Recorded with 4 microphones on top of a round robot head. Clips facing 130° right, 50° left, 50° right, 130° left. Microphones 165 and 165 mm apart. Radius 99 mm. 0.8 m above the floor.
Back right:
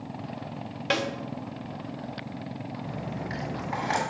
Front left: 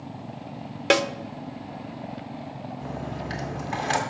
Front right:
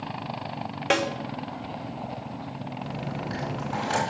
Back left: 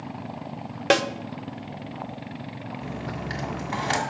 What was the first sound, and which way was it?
A snare drum, 85° left.